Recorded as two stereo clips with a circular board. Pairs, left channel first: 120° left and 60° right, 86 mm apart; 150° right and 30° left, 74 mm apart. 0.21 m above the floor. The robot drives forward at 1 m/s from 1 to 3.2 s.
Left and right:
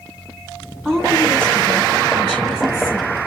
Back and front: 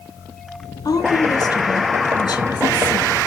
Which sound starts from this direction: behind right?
A woman speaking, at 0.8 s.